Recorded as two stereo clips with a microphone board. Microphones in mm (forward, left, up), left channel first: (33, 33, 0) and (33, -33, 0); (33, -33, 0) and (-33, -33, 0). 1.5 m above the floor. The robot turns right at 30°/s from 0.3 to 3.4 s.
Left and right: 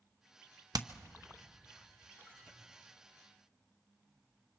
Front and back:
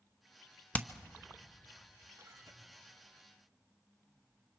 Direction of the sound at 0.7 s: 70° right.